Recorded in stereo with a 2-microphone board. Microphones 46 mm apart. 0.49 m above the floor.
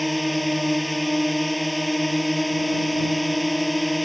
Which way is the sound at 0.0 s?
Centre (ahead or behind).